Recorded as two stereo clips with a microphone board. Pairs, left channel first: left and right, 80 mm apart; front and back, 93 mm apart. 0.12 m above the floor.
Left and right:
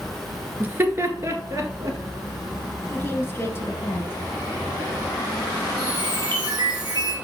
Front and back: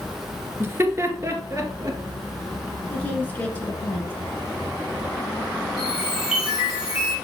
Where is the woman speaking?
55° left, 1.8 m.